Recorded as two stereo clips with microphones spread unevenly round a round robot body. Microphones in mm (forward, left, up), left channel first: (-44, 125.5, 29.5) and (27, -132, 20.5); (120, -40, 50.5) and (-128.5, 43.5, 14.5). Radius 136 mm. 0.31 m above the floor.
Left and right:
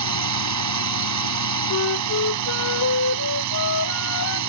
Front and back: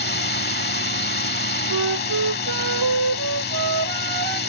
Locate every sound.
0.0 s a drone: 75° right
1.7 s a flute: 145° left